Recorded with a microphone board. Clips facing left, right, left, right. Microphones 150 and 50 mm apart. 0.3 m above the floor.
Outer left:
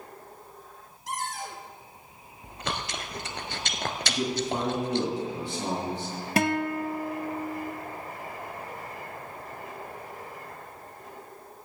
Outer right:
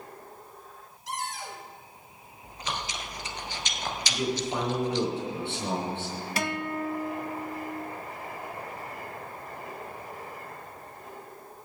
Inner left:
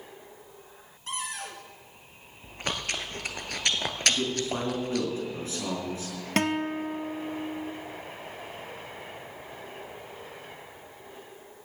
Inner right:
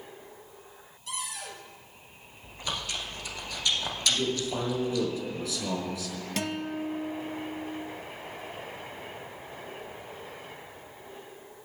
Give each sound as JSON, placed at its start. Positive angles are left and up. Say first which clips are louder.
{"t": 1.1, "sound": "a cupboard door", "louder": "outer left 1 dB, inner left 3 dB", "side_deg": 50, "distance_m": 2.0}
{"t": 2.4, "sound": "chewing", "louder": "outer left 1 dB, inner left 3 dB", "side_deg": 65, "distance_m": 1.0}
{"t": 4.1, "sound": "a man speaking", "louder": "outer left 1 dB, inner left 1 dB", "side_deg": 40, "distance_m": 4.0}
{"t": 6.4, "sound": "a guitar", "louder": "outer left 6 dB, inner left 6 dB", "side_deg": 55, "distance_m": 0.6}